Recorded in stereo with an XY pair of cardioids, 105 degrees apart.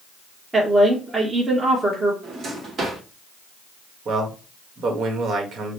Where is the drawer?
50° right, 1.4 m.